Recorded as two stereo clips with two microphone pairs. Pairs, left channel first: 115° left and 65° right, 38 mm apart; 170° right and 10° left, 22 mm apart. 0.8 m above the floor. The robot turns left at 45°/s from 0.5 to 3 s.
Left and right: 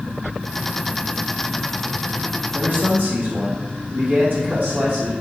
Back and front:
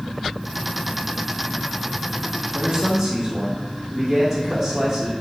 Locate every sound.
2.5 s a man speaking: 35° right, 2.5 m; by 5.1 s 55° right, 2.5 m